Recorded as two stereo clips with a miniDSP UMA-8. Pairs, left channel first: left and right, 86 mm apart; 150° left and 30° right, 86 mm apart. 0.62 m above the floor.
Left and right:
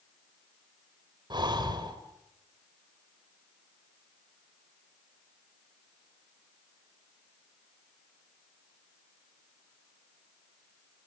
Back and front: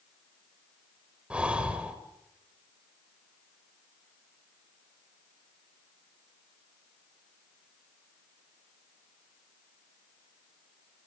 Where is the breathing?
105° right, 2.5 m.